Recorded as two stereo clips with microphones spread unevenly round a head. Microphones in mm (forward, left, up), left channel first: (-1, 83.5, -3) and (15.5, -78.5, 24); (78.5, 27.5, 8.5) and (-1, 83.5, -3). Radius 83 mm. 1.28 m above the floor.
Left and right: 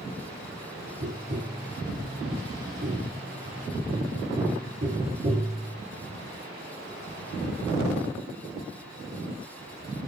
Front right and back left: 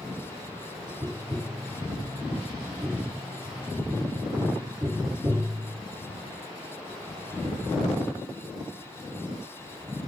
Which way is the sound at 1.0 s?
140° right.